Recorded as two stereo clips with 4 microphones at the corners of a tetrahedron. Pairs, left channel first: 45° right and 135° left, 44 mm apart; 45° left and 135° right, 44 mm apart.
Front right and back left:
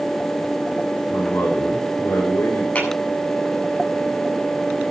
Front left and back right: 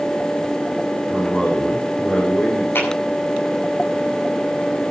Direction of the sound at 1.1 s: 30° right.